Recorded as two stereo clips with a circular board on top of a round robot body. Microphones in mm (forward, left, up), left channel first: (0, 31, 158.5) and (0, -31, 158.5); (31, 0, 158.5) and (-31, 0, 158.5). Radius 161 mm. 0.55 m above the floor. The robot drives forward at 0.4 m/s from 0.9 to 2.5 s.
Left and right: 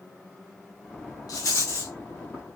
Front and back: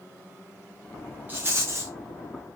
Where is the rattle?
115° left, 0.5 m; by 1.9 s 135° left, 0.7 m.